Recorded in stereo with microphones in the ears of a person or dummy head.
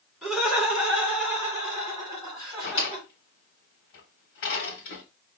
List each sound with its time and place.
0.2 s laughter: centre (ahead or behind), 3.5 m; by 3.1 s 30° right (ahead or behind), 2.5 m
2.6 s a drawer: 55° left (ahead or behind), 1.5 m